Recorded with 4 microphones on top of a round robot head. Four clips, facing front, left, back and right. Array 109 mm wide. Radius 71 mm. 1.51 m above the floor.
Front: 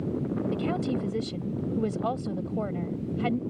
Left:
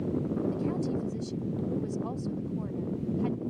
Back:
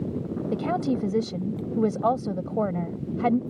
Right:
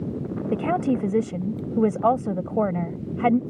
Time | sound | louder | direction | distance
0.5 | a woman speaking | right 8 dB, back 7 dB | 115° right | ?